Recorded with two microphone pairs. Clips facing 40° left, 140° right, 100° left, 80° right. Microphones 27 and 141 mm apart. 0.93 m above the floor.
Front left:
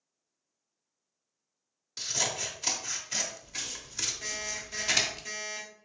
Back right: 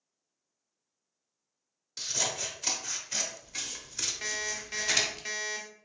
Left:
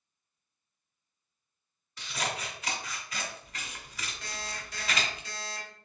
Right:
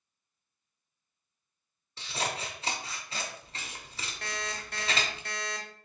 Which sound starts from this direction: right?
An alarm clock, at 4.2 s.